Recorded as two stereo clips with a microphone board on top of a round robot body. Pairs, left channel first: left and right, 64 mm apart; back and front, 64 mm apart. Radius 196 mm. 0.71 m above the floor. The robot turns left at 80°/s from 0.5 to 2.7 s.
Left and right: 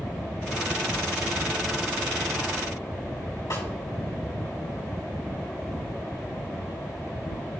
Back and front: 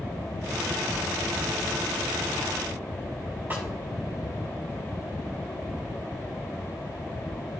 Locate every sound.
3.5 s a snare drum: 60° left, 3.5 m